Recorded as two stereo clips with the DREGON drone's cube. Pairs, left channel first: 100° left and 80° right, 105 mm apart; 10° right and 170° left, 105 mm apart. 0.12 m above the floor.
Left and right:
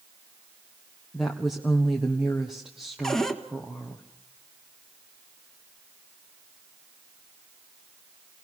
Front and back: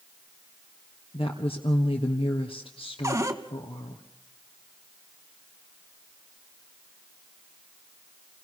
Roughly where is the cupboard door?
Behind.